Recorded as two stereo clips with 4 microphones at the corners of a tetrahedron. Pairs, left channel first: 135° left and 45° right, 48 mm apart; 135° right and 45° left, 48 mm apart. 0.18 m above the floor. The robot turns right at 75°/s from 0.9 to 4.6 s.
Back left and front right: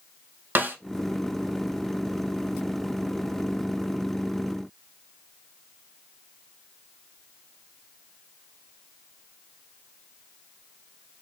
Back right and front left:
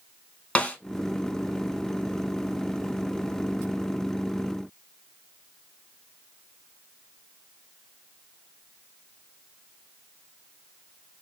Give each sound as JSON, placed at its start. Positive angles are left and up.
{"t": 0.6, "sound": "a snare drum", "azimuth_deg": -75, "distance_m": 0.6}